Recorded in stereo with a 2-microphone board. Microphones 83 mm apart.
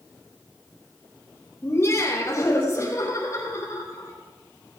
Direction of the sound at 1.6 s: 35° left (ahead or behind).